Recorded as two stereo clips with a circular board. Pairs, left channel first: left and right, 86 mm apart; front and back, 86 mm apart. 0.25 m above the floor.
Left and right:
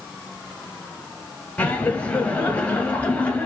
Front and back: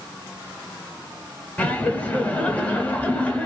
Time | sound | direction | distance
1.6 | laughter | 40° left | 1.0 m